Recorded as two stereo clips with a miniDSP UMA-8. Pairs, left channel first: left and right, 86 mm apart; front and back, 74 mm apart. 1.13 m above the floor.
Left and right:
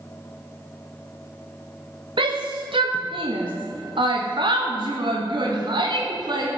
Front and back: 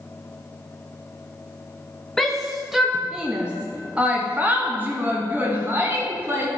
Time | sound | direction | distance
2.2 | a shout | 85° right | 1.5 m